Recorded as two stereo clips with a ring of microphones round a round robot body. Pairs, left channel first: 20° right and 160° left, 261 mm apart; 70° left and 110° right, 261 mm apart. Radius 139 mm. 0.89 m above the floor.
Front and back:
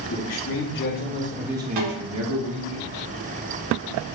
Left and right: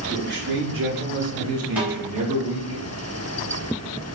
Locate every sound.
0.1 s a man speaking: 55° right, 1.9 m; by 2.8 s 165° left, 1.6 m
1.8 s a snare drum: 165° left, 2 m